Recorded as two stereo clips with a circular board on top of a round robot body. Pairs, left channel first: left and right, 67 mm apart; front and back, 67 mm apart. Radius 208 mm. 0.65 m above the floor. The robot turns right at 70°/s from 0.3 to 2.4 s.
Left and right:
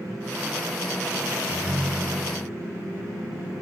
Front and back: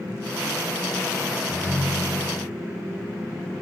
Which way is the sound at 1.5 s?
130° right.